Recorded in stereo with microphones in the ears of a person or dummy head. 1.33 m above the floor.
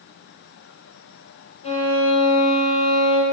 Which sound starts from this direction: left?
A violin, at 1.6 s.